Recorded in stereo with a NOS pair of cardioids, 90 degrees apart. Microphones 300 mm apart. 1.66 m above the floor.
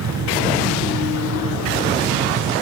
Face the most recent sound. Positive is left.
turn(degrees=-60)